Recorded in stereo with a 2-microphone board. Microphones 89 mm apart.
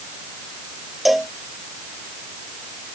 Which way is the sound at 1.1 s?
Centre (ahead or behind).